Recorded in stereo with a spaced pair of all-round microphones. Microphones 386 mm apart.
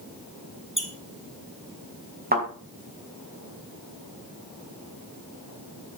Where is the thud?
25° right (ahead or behind), 4.5 m.